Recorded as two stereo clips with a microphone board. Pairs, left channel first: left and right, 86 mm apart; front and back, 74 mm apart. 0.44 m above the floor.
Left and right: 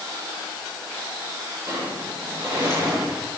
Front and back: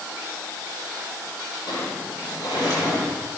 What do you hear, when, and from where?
1.7 s a sliding door: 30° right, 9 m